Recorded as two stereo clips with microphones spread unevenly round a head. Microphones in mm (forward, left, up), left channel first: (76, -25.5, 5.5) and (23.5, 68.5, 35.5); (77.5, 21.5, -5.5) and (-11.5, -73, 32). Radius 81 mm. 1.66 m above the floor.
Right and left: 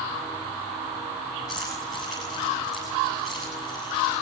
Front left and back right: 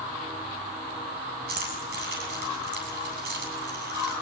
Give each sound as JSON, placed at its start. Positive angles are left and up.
{"t": 1.5, "sound": "keys jangling", "azimuth_deg": -155, "distance_m": 8.5}